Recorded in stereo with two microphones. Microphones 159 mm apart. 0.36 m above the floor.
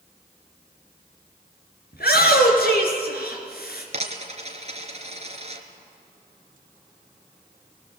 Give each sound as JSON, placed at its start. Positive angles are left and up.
{"t": 1.9, "sound": "a shout", "side_deg": 75, "distance_m": 5.5}
{"t": 3.9, "sound": "a dropped coin", "side_deg": -45, "distance_m": 2.5}